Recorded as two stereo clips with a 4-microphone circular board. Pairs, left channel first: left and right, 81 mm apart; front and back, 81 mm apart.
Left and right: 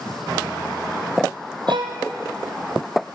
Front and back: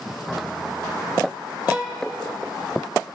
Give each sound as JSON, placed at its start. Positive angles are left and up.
{"t": 1.7, "sound": "a violin", "azimuth_deg": -110, "distance_m": 1.0}